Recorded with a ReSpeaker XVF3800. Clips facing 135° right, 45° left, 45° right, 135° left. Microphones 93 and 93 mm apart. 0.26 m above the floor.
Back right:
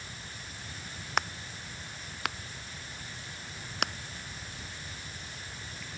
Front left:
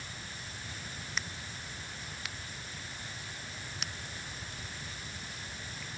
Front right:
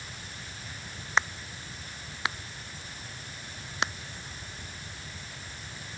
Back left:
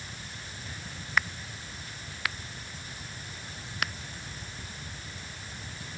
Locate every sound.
1.2 s a crack: 110° right